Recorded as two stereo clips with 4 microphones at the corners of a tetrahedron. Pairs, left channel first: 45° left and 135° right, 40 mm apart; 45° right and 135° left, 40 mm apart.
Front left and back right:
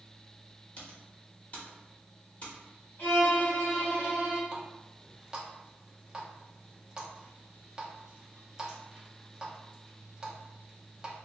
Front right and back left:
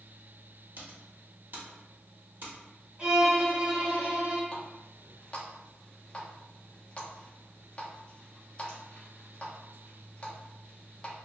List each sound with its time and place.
0.8 s typing on a keyboard: 105° left, 0.7 m
3.0 s a violin: 70° left, 1.5 m
4.5 s a running tap: 70° right, 0.6 m